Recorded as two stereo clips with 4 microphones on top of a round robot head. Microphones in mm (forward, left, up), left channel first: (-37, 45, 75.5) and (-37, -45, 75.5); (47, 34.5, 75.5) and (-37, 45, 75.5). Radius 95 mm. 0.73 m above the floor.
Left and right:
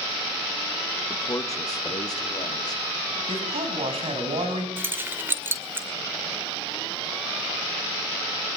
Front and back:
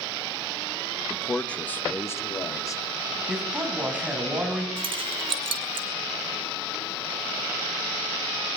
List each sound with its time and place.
1.1 s a man speaking: 95° left, 1.2 m; by 3.2 s 40° left, 3.5 m
3.3 s a man speaking: 105° right, 5.5 m
4.8 s keys jangling: 160° right, 1.9 m